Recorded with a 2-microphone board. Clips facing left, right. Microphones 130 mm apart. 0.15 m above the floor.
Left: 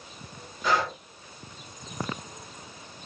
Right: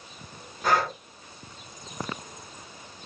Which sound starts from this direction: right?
Breathing, at 0.6 s.